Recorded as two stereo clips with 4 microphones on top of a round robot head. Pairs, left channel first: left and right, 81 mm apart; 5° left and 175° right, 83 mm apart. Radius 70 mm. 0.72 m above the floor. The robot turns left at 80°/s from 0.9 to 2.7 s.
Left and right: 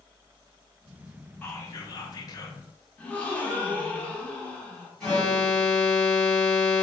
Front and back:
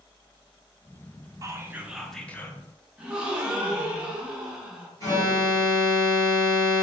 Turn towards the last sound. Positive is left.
turn(degrees=15)